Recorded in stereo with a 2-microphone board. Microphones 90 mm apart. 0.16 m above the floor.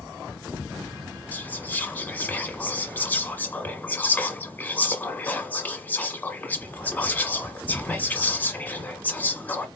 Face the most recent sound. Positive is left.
turn(degrees=20)  # may be behind; listen again after turning